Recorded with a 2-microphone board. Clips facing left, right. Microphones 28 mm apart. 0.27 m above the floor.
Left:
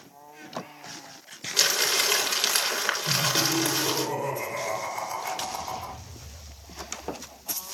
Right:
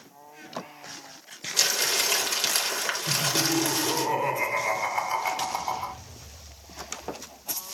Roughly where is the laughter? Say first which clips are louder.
Even; right.